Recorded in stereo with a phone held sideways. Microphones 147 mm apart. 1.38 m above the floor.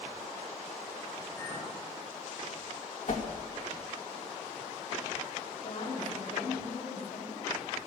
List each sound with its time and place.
1.4 s a clink: 10° left (ahead or behind), 8 m
3.1 s a whoosh: 60° left (ahead or behind), 2 m
5.6 s a woman speaking: 70° left (ahead or behind), 5 m